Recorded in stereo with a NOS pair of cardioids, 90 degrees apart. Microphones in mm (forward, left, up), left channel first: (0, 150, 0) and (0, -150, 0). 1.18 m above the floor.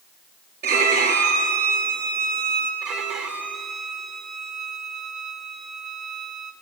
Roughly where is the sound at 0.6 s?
Ahead right.